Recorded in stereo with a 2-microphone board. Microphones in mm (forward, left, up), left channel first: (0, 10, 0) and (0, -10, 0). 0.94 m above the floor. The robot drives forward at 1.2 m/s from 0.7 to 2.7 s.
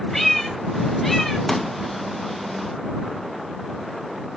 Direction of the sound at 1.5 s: 10° left (ahead or behind).